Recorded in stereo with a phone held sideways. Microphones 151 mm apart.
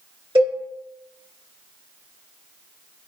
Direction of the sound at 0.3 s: 35° right (ahead or behind).